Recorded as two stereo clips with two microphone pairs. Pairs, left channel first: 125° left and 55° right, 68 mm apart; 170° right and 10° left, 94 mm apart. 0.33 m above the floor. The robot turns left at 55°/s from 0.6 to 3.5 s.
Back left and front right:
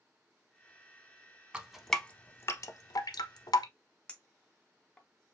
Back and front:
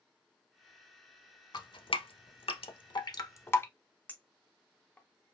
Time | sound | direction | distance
1.5 | dripping | 130° right | 0.5 m
4.1 | a clink | 160° left | 0.7 m